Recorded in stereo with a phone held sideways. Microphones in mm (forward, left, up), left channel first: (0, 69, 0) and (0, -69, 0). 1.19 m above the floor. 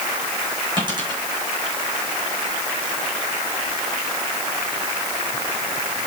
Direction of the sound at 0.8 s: 35° right (ahead or behind).